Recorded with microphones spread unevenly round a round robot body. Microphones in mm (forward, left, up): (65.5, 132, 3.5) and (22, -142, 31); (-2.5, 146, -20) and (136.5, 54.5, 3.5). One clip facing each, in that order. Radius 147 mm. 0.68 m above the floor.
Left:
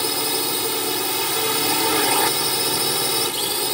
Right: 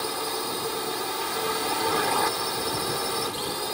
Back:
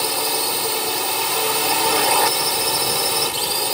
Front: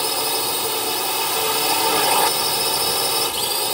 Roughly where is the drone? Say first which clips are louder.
Left 5 dB, back 1 dB; ahead left.